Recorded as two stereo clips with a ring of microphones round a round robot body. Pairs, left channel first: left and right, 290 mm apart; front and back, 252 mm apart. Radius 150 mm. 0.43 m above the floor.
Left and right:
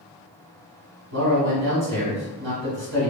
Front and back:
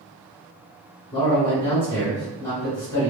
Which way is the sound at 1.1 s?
85° right.